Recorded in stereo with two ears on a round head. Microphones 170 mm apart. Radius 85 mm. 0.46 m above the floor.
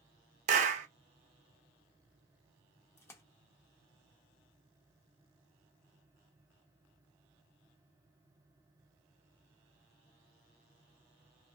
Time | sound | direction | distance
0.5 | a clap | 40° right (ahead or behind) | 0.6 m
3.0 | a splash | 15° left (ahead or behind) | 0.7 m